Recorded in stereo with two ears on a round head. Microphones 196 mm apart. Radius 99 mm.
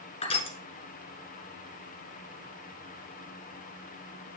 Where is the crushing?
25° left (ahead or behind), 1.6 m.